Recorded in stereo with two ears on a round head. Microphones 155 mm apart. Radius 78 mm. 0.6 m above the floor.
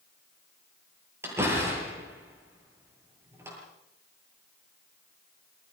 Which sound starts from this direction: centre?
A door slam, at 1.2 s.